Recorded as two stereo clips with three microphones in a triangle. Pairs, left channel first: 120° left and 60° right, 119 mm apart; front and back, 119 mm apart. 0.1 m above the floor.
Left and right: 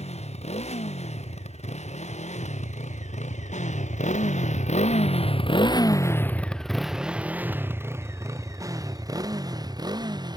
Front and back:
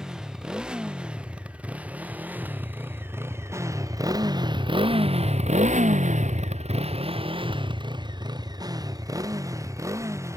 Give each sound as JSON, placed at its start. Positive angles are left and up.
{"t": 0.0, "sound": "a motorcycle", "azimuth_deg": 95}